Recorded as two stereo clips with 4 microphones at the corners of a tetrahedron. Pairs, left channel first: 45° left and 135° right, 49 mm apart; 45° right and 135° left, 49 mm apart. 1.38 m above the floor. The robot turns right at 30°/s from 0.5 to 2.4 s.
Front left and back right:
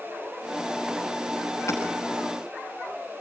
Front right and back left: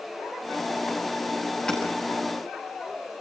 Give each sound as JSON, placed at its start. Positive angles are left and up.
{"t": 1.7, "sound": "hammering", "azimuth_deg": 30, "distance_m": 7.0}